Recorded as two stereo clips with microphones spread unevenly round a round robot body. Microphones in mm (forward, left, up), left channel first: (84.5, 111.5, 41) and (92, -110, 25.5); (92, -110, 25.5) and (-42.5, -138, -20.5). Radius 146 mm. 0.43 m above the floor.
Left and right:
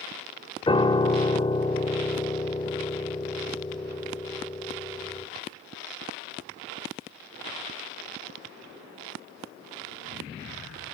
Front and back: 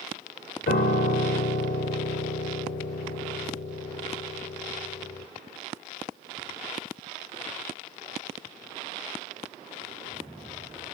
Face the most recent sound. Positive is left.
turn(degrees=25)